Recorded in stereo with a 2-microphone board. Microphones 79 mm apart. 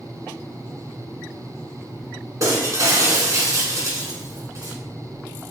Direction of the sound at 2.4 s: 40° right (ahead or behind).